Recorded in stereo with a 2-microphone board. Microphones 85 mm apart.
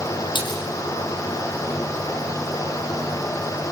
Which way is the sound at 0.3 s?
65° left (ahead or behind).